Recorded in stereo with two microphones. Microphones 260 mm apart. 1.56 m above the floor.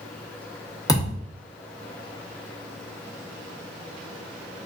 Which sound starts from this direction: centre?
A thud, at 0.9 s.